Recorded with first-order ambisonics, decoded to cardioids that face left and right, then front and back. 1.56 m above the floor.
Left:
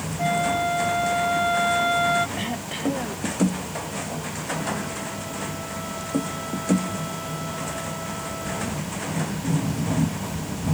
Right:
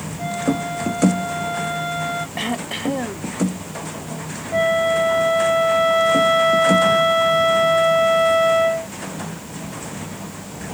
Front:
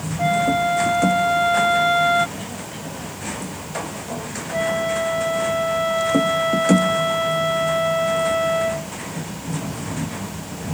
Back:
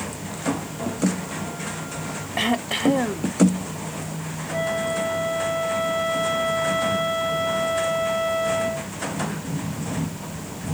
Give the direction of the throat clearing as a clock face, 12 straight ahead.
5 o'clock.